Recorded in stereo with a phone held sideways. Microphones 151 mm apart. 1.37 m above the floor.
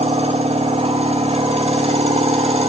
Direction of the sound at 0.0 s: 40° right (ahead or behind).